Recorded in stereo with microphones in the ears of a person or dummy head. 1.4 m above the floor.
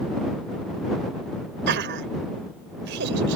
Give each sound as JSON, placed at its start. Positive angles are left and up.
{"t": 1.7, "sound": "laughter", "side_deg": -70}